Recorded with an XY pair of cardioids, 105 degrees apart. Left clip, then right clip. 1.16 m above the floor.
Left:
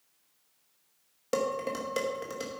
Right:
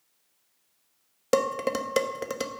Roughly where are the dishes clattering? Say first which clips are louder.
Right 5 dB; ahead right.